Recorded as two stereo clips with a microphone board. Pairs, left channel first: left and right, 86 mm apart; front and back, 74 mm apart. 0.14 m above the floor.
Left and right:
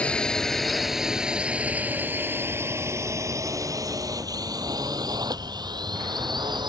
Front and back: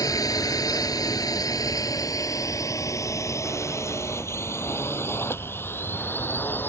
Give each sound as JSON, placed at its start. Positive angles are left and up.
{"t": 0.0, "sound": "a drone", "azimuth_deg": 15}